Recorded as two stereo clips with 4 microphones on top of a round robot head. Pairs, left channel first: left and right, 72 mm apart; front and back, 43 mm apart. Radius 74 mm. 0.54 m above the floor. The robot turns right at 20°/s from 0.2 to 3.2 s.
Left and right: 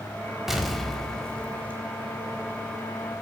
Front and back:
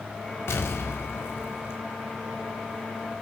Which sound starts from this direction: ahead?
An explosion, at 0.5 s.